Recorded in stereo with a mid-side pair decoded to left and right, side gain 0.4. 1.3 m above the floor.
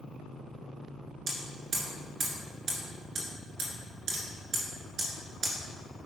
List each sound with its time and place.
1.3 s hammering: 70° right, 2 m